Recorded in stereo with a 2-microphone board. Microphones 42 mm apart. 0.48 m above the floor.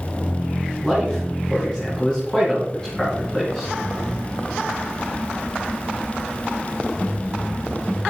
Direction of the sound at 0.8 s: 15° left (ahead or behind).